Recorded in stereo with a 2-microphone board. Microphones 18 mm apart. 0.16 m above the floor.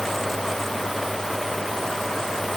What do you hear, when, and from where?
Only background noise.